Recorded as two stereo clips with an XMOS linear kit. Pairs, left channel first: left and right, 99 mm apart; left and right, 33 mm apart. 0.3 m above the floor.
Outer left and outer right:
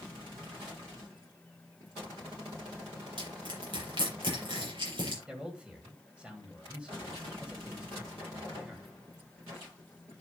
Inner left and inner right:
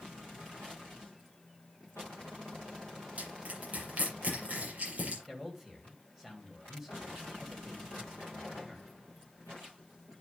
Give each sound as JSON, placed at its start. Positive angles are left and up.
{"t": 3.2, "sound": "crushing", "side_deg": -55, "distance_m": 7.0}
{"t": 5.3, "sound": "a man speaking", "side_deg": -10, "distance_m": 1.9}